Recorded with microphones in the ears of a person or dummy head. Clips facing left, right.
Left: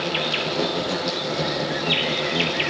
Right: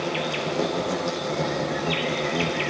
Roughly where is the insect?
Centre.